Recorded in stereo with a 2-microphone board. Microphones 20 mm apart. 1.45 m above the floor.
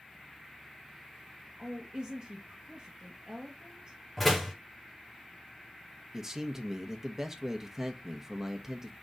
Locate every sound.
1.6 s a woman speaking: 30° right (ahead or behind), 2.0 m
4.2 s a door slam: 5° left (ahead or behind), 2.5 m
6.1 s a man speaking: 25° right (ahead or behind), 1.1 m